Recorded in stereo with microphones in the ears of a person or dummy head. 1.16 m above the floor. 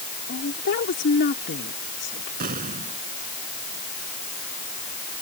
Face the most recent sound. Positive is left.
turn(degrees=-45)  # may be behind; listen again after turning